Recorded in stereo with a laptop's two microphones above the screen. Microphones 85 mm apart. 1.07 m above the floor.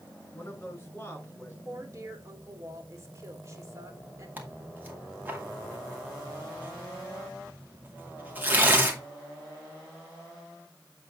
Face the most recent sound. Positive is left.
turn(degrees=-20)  # may be behind; listen again after turning